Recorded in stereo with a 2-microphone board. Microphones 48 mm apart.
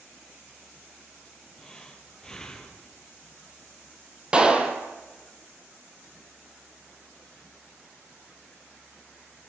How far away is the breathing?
About 3 m.